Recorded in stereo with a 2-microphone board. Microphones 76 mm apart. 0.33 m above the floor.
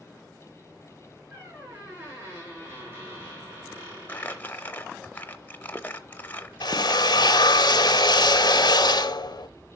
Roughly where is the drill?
Left.